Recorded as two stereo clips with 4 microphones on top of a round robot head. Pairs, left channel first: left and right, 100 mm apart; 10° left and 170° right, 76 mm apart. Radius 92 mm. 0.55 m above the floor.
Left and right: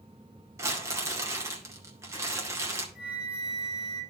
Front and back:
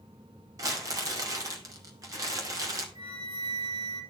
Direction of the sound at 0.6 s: 145° right.